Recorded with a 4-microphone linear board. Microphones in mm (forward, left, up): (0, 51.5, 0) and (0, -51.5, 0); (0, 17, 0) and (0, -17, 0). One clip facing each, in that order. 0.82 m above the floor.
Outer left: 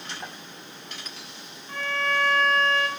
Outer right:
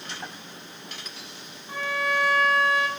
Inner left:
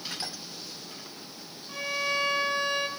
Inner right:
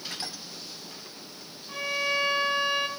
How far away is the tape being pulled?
I don't hear tape being pulled.